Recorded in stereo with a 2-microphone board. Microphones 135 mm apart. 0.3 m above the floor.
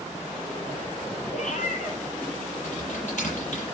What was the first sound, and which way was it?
A cat meowing, 65° left (ahead or behind).